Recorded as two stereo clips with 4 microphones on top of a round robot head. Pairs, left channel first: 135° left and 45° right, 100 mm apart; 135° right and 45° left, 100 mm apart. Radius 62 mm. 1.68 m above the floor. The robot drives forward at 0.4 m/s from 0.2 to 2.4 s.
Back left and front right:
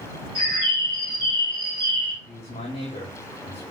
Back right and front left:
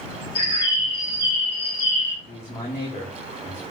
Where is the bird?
90° right, 3 m; by 2.2 s 105° right, 3 m.